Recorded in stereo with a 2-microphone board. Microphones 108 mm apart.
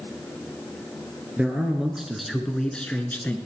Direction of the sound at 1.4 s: 10° right (ahead or behind).